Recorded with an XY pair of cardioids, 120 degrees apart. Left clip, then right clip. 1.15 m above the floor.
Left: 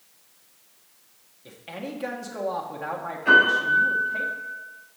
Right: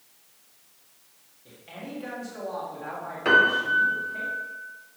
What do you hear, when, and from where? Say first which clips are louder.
1.4 s a man speaking: left 5 dB; 45° left, 1.5 m
3.2 s a piano: left 2 dB; 65° right, 3 m